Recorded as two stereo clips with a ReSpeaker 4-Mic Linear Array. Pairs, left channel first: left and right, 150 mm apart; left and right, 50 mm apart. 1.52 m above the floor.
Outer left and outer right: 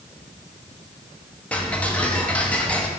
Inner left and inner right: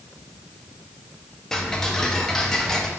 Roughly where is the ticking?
Centre.